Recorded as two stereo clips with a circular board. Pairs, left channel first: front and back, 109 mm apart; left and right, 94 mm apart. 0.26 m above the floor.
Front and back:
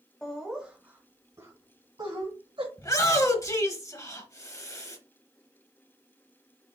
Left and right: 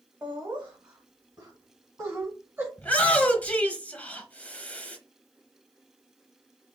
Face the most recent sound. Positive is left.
turn(degrees=25)